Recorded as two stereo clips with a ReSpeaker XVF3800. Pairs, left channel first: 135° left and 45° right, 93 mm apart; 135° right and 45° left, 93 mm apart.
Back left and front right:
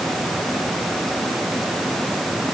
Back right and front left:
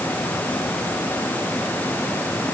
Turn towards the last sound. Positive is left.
No sound to turn to.